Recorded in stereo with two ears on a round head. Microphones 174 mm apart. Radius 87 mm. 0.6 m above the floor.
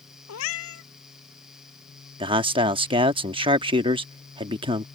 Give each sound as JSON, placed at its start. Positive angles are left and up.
{"t": 0.3, "sound": "a cat meowing", "side_deg": 80}
{"t": 2.2, "sound": "a man speaking", "side_deg": -25}